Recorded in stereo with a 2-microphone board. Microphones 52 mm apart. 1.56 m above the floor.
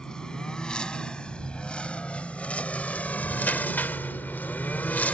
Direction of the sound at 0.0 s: 15° left (ahead or behind).